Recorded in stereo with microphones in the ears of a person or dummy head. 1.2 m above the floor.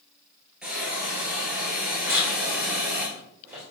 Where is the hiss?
5° right (ahead or behind), 3 m.